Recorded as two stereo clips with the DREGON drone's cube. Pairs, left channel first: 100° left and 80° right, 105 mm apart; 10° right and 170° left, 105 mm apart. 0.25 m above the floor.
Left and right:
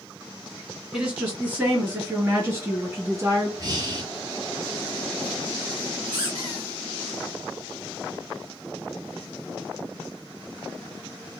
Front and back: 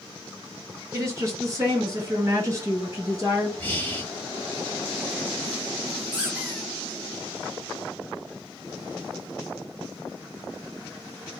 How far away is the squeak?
About 2.0 m.